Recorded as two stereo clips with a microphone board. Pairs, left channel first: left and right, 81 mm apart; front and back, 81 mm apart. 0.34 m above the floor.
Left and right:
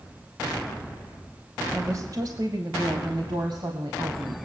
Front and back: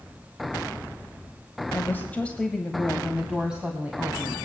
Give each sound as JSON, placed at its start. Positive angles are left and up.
{"t": 1.7, "sound": "a woman speaking", "azimuth_deg": -50, "distance_m": 1.3}